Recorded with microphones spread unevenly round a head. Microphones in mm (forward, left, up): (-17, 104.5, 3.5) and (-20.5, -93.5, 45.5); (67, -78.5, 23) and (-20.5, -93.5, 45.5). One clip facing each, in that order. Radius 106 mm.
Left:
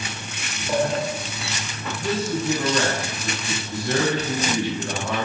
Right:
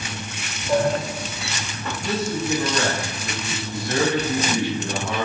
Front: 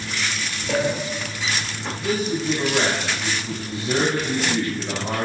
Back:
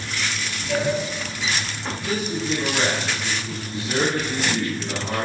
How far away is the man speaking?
About 7 m.